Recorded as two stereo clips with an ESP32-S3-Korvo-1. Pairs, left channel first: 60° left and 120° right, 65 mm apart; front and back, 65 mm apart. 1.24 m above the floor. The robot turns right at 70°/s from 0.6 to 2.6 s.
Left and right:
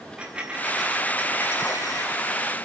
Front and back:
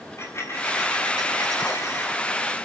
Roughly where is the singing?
No singing in this recording.